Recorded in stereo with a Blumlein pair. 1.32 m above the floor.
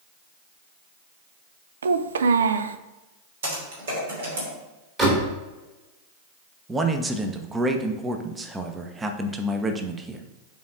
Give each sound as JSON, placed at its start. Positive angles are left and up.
{"t": 1.8, "sound": "a child speaking", "azimuth_deg": -70, "distance_m": 0.5}
{"t": 3.4, "sound": "typing on a keyboard", "azimuth_deg": -60, "distance_m": 3.0}
{"t": 5.0, "sound": "a door slam", "azimuth_deg": -20, "distance_m": 3.0}
{"t": 6.7, "sound": "a man speaking", "azimuth_deg": -10, "distance_m": 0.8}